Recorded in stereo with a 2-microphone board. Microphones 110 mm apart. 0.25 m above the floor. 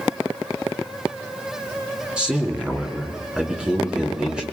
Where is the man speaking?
10° right (ahead or behind), 3.5 m.